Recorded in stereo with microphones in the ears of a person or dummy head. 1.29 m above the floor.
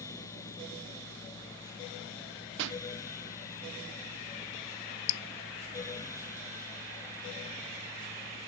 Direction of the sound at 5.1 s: 85° left.